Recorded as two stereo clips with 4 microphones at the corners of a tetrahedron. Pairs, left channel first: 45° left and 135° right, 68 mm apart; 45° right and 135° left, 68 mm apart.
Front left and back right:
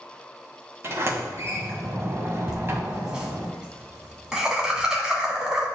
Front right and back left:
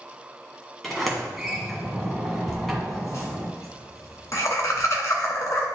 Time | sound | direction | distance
0.8 | a sliding door | 130° right | 1.8 m
2.5 | laughter | 60° right | 2.0 m